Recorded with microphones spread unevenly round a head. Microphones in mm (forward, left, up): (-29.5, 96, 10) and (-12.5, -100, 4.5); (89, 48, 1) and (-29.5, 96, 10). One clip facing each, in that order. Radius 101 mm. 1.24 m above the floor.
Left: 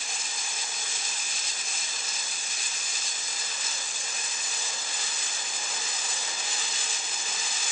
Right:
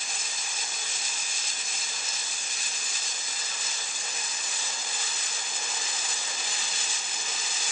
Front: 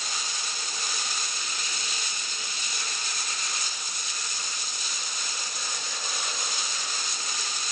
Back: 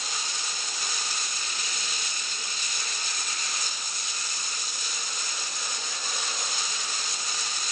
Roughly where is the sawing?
No sawing in this recording.